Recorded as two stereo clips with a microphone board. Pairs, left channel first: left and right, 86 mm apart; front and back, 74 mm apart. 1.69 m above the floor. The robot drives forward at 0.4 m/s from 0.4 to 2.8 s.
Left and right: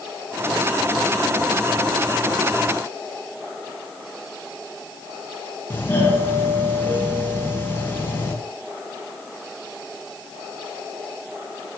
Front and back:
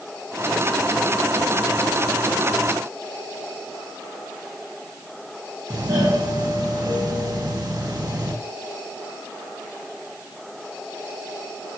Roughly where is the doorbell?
Behind left.